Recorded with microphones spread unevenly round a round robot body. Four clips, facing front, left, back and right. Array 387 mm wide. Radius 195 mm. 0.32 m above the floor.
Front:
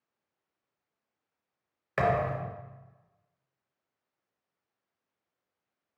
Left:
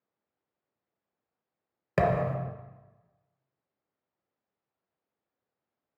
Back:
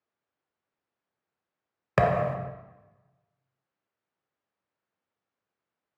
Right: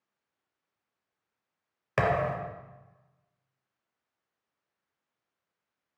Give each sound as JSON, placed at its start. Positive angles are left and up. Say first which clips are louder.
{"t": 2.0, "sound": "a thud", "louder": "left 1 dB, back 3 dB", "azimuth_deg": 165, "distance_m": 0.7}